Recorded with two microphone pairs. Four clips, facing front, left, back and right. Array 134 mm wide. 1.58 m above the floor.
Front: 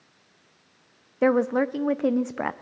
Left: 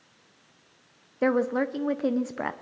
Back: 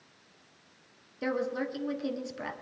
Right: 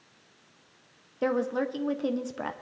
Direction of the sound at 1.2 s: 15° left.